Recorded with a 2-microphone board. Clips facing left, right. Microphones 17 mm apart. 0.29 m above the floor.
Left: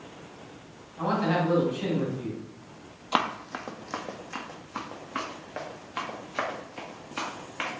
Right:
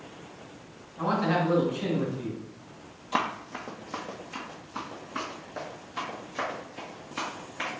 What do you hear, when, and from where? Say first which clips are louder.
1.0 s a man speaking: even; 15° left (ahead or behind), 1.9 m
3.1 s running footsteps: left 2 dB; 55° left (ahead or behind), 0.5 m; by 7.7 s 60° left (ahead or behind), 3 m